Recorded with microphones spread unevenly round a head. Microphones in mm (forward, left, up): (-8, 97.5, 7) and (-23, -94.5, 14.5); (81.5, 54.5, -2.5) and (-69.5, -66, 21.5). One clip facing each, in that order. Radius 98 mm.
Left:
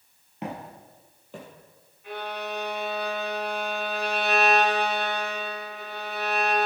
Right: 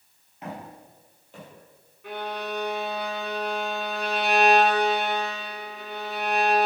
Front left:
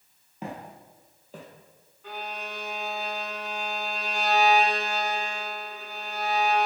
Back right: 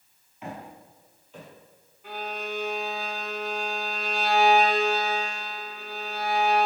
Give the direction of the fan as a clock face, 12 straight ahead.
I don't hear a fan.